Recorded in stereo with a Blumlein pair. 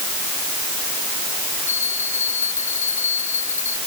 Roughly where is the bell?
Left.